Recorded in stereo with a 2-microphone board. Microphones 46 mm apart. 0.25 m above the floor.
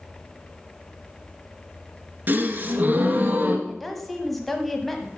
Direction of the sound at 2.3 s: 40° right (ahead or behind).